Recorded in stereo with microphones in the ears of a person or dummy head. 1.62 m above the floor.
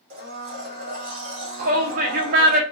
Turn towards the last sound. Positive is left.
turn(degrees=-55)  # may be behind; listen again after turning